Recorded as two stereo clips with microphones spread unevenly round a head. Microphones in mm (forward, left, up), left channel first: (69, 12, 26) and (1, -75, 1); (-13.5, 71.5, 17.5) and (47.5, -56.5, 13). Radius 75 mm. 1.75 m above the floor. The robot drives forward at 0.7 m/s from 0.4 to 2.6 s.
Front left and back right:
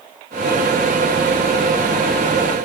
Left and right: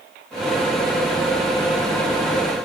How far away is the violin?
I don't hear a violin.